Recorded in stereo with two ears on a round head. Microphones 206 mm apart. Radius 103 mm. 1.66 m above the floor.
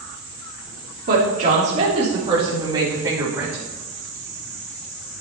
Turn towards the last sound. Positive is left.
turn(degrees=-5)  # may be behind; listen again after turning